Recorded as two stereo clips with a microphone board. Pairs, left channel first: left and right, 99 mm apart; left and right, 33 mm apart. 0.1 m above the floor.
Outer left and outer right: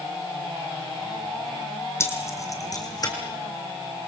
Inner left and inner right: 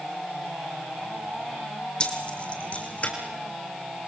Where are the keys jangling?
25° left (ahead or behind), 2.5 m; by 3.1 s 40° left (ahead or behind), 4 m.